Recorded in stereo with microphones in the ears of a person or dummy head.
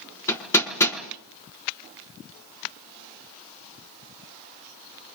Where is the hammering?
15° left (ahead or behind), 6.5 m.